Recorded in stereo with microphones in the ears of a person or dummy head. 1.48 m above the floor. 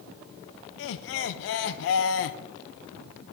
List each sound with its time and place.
0.8 s laughter: 70° left (ahead or behind), 0.6 m